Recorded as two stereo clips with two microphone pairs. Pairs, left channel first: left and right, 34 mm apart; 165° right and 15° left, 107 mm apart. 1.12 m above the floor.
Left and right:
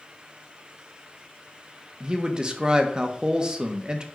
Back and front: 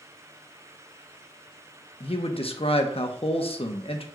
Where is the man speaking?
155° right, 1.0 m.